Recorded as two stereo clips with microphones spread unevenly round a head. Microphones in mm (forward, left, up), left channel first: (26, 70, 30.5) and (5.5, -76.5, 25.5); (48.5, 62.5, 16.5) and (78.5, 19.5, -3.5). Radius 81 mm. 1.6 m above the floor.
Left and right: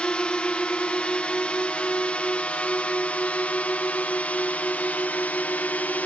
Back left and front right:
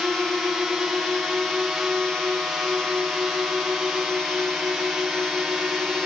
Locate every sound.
0.0 s a drone: 5° left